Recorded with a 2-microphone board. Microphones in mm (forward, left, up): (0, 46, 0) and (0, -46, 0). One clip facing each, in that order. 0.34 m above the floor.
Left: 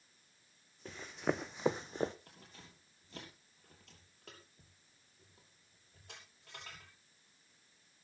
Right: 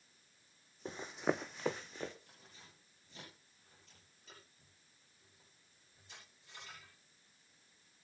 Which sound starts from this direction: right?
Running footsteps, at 0.8 s.